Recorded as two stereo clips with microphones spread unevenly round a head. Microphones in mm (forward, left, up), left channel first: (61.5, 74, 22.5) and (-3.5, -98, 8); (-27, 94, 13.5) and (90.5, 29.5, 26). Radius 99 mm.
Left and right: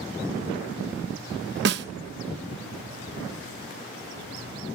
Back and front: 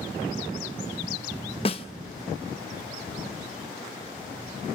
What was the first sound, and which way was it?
A snare drum, 145° right.